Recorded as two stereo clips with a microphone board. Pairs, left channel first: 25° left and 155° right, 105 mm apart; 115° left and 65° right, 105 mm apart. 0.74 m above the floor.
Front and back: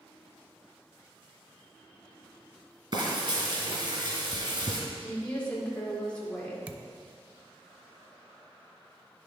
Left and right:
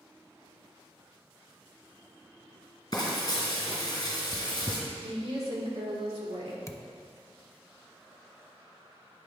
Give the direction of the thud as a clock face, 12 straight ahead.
7 o'clock.